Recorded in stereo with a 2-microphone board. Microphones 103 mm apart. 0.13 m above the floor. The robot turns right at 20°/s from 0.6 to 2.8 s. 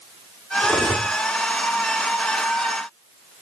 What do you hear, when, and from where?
0.6 s cutlery clinking: 5° right (ahead or behind), 5 m; by 1.1 s 5° left (ahead or behind), 5 m